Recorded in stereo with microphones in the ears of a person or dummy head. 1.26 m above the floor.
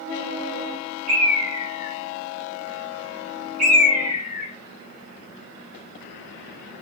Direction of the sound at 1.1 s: 50° right (ahead or behind).